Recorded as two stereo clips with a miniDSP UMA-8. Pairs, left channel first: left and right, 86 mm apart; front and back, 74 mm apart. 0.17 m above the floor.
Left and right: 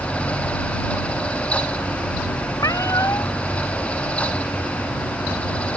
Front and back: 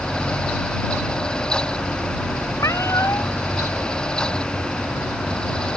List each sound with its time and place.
2.6 s a cat meowing: 40° left